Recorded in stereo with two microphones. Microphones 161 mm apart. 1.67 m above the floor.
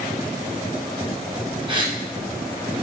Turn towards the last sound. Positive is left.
turn(degrees=-30)  # may be behind; listen again after turning